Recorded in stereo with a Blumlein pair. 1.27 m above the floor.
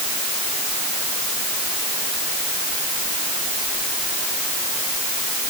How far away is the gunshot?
No gunshot in this recording.